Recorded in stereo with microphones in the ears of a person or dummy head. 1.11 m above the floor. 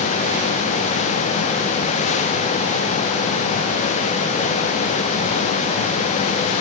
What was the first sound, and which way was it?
Only background noise.